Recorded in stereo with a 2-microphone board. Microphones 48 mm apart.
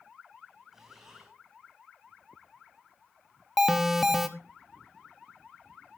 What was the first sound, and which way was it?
Breathing, 10° right (ahead or behind).